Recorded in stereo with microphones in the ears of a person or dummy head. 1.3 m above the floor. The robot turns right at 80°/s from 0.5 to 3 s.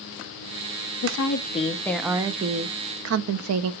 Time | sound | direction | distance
1.0 | a woman speaking | 100° left | 0.5 m